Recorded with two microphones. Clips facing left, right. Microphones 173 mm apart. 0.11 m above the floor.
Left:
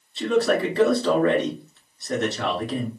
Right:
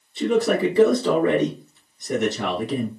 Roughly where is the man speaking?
Centre.